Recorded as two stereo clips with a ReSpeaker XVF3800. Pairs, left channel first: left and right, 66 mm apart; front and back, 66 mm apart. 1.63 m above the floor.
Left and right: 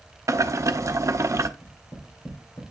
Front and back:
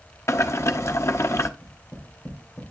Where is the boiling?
45° right, 0.7 m.